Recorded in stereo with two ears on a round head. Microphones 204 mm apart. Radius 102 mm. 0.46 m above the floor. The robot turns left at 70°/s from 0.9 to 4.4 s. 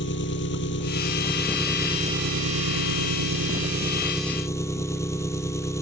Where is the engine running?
50° left; by 5.8 s 165° left.